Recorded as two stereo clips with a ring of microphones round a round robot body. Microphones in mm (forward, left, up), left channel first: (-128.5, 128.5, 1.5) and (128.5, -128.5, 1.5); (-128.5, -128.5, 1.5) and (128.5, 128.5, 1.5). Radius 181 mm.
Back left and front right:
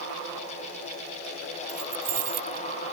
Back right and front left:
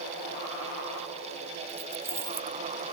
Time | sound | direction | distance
1.7 | keys jangling | 40° right | ?